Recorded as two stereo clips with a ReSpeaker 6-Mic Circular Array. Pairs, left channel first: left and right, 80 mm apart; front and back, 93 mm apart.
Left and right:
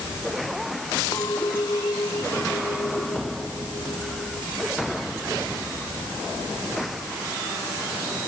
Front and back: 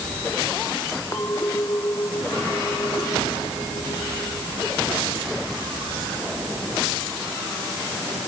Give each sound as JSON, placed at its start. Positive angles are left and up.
{"t": 1.1, "sound": "a clink", "azimuth_deg": 55}